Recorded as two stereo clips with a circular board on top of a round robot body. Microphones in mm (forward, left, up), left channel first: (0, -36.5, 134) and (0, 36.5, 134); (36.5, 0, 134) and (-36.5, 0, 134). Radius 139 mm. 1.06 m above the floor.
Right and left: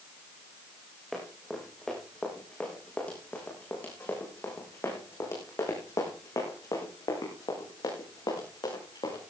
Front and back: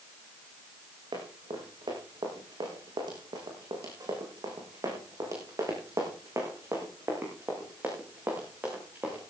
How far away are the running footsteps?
About 6 m.